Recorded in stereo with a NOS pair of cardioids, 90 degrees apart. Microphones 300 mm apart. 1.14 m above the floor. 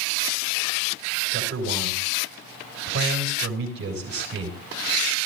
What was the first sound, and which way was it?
A man speaking, 50° right.